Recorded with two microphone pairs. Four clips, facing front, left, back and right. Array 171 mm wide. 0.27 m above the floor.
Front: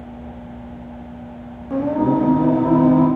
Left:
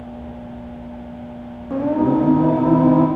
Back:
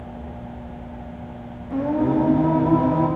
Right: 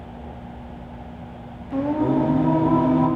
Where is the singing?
65° left, 4.5 m.